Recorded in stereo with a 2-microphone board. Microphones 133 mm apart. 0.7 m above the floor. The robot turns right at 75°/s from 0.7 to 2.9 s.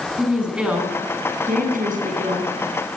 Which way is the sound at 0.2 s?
175° right.